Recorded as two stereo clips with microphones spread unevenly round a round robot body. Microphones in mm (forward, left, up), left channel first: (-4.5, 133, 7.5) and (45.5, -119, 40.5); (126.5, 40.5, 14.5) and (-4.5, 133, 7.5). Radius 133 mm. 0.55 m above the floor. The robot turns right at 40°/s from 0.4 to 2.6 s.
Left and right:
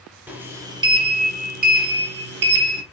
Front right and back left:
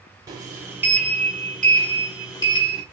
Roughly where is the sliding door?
Behind.